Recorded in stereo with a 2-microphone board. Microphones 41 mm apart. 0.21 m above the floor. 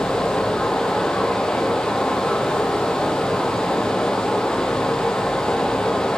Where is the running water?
15° left (ahead or behind), 4 m.